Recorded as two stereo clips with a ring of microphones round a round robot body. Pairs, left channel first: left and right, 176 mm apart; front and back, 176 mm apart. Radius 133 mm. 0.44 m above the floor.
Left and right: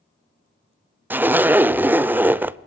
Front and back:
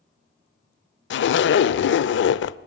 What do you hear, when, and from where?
1.1 s a zipper: 10° right, 0.6 m